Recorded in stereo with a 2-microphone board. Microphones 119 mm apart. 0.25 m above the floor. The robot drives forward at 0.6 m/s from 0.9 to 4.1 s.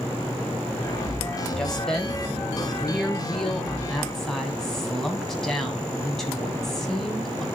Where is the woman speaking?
5° left (ahead or behind), 1.0 m.